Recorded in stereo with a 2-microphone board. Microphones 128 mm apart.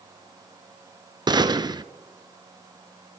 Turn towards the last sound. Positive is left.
turn(degrees=-35)  # may be behind; listen again after turning